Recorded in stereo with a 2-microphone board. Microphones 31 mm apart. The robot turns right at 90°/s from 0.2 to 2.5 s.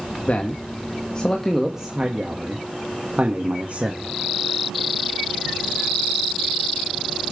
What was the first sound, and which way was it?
A man speaking, 60° left.